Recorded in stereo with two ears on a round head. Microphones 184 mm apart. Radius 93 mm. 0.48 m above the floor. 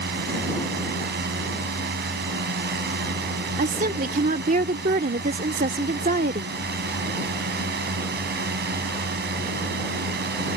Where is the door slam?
I don't hear a door slam.